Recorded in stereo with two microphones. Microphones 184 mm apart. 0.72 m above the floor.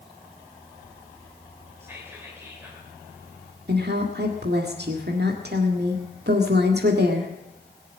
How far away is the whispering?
About 2.5 m.